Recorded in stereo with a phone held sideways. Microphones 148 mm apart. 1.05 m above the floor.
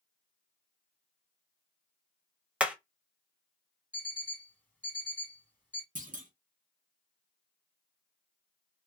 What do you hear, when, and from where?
2.6 s hammering: 10° right (ahead or behind), 0.7 m
3.9 s an alarm clock: 10° left (ahead or behind), 1.7 m
6.0 s a clunk: 60° right (ahead or behind), 1.0 m